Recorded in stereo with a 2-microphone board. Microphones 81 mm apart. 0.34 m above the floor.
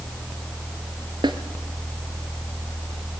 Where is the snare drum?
80° right, 1.3 m.